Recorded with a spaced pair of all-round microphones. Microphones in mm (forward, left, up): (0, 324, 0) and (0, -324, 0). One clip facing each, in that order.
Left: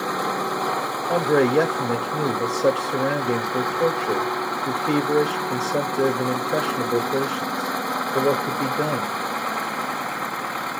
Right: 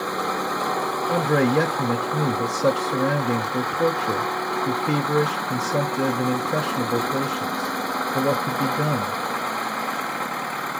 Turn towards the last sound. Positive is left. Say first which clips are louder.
# left 2 dB
turn(degrees=-30)  # may be behind; listen again after turning